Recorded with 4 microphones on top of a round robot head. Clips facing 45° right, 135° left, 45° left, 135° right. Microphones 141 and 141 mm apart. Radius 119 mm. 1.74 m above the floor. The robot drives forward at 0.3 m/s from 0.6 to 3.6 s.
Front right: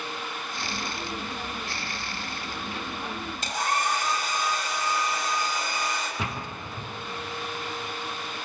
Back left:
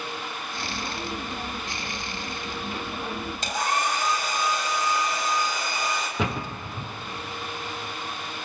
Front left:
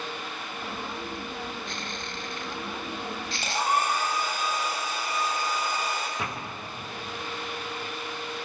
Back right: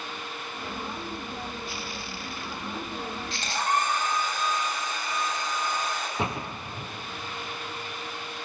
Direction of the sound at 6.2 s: 155° left.